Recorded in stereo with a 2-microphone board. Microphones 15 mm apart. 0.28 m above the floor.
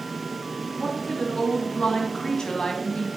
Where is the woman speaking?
50° left (ahead or behind), 4 m; by 3.1 s 45° left (ahead or behind), 2 m.